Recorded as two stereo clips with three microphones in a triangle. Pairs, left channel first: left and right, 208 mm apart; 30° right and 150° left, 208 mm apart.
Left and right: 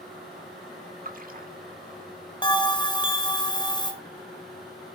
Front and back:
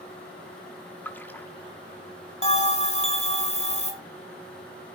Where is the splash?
110° right, 1.1 m.